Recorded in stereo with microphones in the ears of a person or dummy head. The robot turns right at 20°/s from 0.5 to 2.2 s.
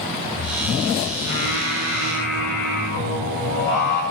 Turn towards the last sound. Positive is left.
turn(degrees=55)  # may be behind; listen again after turning